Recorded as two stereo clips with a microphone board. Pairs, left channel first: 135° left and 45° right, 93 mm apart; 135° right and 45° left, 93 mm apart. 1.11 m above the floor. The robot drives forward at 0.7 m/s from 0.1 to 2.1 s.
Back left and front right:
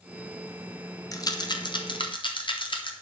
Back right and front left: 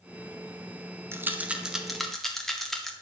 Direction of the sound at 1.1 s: 100° left.